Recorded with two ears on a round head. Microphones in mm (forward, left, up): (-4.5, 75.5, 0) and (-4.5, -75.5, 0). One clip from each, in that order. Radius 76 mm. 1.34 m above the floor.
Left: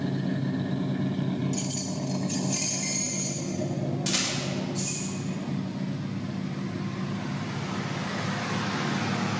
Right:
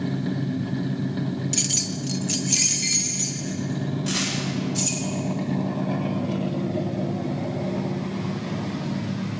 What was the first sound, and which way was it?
Keys jangling, 40° right (ahead or behind).